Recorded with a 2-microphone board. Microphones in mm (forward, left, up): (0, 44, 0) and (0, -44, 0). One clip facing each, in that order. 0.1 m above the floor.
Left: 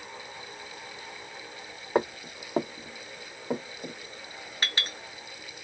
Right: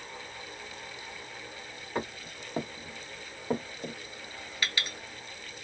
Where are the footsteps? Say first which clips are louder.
Left 8 dB; 50° left (ahead or behind), 0.8 m; by 4.0 s 10° right (ahead or behind), 1.2 m.